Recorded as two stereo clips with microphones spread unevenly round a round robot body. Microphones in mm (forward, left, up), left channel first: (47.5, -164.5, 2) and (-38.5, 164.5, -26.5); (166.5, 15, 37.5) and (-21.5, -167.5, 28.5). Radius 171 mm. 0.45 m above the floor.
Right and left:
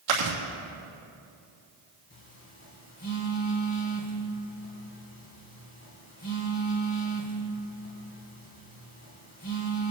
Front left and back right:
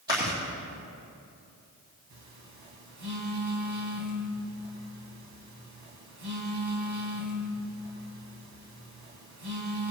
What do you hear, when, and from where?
0.1 s chewing: 145° left, 2.5 m
2.1 s a phone buzzing: 135° right, 2.5 m